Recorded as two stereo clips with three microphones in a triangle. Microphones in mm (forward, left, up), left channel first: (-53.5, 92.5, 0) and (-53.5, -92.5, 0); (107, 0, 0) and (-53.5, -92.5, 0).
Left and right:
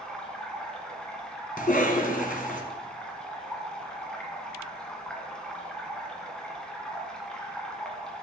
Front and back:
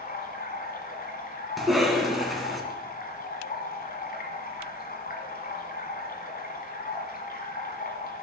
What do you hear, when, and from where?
0.0 s running water: 5° left, 1.3 m
1.6 s a cough: 120° left, 2 m